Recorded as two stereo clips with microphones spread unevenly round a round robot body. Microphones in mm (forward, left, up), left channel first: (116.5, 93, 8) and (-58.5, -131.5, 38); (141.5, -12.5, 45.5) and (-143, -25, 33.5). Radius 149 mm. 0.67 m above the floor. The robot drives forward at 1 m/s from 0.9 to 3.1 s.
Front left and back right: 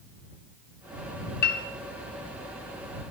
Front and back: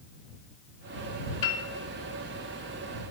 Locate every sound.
1.4 s a piano: straight ahead, 1.8 m